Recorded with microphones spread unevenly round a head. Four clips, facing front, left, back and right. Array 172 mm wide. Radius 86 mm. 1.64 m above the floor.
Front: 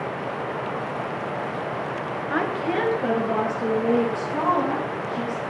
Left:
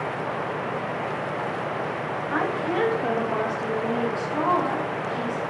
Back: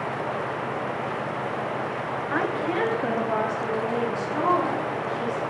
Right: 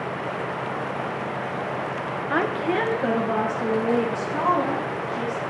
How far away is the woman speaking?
About 1.2 m.